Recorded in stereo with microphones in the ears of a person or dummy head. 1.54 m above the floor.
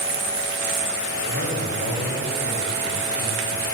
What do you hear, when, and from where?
1.2 s a man speaking: 85° left, 4.5 m